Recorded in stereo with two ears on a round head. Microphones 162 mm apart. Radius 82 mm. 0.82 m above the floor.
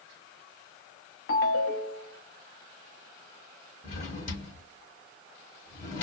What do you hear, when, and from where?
1.3 s a ringtone: 70° left (ahead or behind), 0.8 m
3.8 s a drawer: 40° left (ahead or behind), 1.3 m